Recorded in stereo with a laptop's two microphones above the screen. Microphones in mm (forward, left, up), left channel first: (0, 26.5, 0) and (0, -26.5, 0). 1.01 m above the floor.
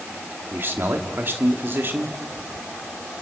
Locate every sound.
0.5 s a man speaking: 45° right (ahead or behind), 2.5 m